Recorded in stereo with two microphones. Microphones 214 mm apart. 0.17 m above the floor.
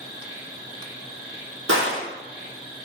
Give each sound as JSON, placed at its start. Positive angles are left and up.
{"t": 0.0, "sound": "an insect", "side_deg": -15, "distance_m": 1.8}
{"t": 1.7, "sound": "a gunshot", "side_deg": -90, "distance_m": 0.9}